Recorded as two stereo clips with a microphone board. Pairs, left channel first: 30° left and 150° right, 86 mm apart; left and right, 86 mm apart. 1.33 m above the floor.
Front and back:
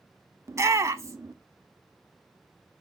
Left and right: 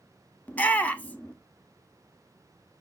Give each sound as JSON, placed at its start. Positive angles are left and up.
{"t": 0.5, "sound": "a shout", "azimuth_deg": 160, "distance_m": 0.6}